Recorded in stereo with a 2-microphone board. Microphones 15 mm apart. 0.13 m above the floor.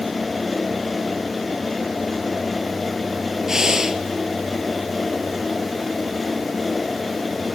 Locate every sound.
3.5 s breathing: 30° right (ahead or behind), 1.9 m